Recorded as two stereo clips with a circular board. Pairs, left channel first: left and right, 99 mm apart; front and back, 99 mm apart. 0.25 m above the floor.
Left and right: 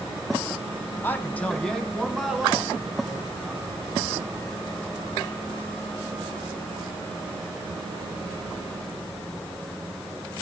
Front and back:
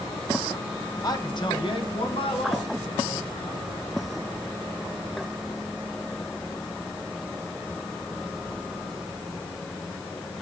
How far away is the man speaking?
About 1.6 m.